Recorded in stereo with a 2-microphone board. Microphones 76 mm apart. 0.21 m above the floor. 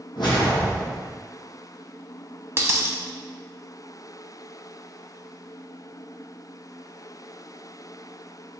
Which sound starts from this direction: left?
A whoosh, at 0.1 s.